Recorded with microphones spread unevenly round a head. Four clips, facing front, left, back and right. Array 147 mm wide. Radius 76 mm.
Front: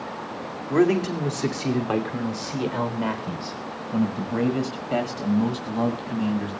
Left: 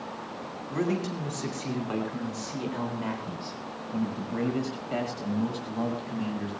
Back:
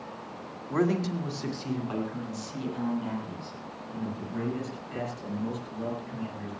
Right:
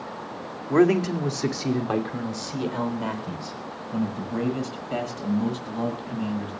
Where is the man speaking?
60° right, 2 m; by 6.5 s 5° right, 7 m.